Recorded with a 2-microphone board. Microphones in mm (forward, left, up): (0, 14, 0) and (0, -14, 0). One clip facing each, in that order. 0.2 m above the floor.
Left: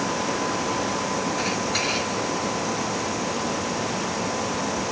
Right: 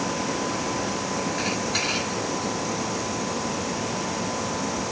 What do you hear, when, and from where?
Only background noise.